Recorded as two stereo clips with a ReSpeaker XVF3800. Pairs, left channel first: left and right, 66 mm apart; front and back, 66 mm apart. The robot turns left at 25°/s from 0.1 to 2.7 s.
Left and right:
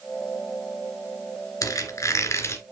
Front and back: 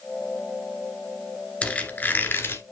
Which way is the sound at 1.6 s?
70° left.